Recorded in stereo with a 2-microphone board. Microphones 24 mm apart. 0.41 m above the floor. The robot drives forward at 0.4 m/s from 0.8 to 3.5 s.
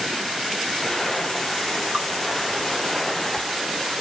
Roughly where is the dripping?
Right.